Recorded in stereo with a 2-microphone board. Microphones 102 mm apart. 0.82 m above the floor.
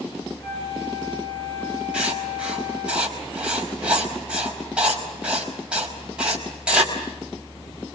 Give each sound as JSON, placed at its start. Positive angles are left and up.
{"t": 0.4, "sound": "a flute", "side_deg": 75, "distance_m": 9.5}
{"t": 1.9, "sound": "writing", "side_deg": -10, "distance_m": 5.0}